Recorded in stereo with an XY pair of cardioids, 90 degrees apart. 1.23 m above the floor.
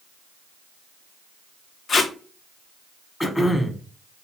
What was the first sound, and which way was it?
Tape being pulled, 55° left.